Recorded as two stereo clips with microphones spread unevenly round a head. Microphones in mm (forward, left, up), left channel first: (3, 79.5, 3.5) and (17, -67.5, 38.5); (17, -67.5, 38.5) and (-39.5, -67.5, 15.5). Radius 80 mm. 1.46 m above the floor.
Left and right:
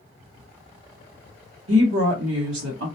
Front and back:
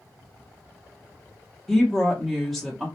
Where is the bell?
No bell in this recording.